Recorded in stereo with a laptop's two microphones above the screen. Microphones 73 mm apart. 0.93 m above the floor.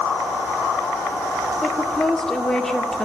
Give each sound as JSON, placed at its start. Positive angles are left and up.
{"t": 1.6, "sound": "a woman speaking", "side_deg": 5, "distance_m": 2.0}